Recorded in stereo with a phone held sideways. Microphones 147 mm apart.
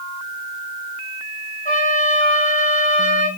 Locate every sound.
1.6 s a trumpet: 80° left, 5.5 m